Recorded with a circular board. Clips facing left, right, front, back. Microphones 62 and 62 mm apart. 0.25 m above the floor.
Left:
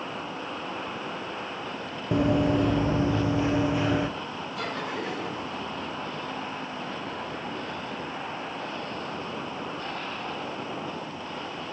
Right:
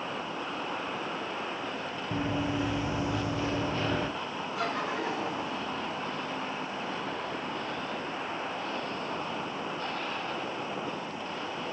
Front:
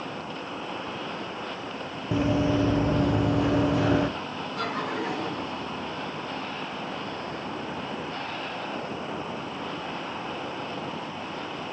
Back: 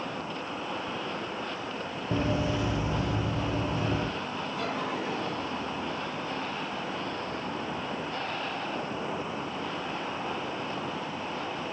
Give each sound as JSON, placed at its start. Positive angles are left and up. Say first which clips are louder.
{"t": 2.1, "sound": "running footsteps", "louder": "left 9 dB, front 5 dB", "azimuth_deg": 80, "distance_m": 0.7}
{"t": 4.6, "sound": "laughter", "louder": "right 1 dB, front 4 dB", "azimuth_deg": -25, "distance_m": 4.0}